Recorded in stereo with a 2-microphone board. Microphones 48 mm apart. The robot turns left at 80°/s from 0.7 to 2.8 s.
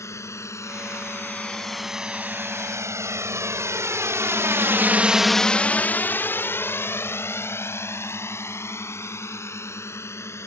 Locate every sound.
0.0 s a drone: 85° left; by 10.5 s 65° left (ahead or behind)